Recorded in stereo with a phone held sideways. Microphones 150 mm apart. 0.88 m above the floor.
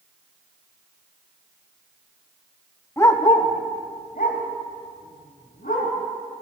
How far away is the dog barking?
About 0.9 m.